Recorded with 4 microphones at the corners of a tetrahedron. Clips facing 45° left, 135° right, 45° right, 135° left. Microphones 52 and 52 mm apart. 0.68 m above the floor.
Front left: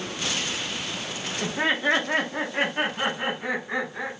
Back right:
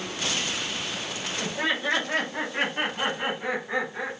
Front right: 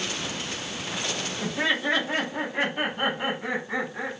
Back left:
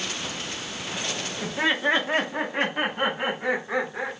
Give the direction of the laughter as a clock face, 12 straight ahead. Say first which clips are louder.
Front left 4 dB, back left 2 dB; 10 o'clock.